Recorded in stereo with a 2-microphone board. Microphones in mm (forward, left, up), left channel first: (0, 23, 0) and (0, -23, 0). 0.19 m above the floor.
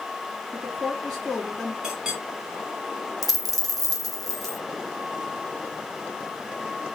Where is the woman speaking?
10° left (ahead or behind), 1.9 m.